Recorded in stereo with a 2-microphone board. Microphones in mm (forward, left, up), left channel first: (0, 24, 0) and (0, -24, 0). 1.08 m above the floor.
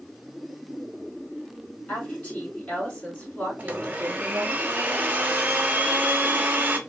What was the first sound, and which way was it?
A woman speaking, 25° left (ahead or behind).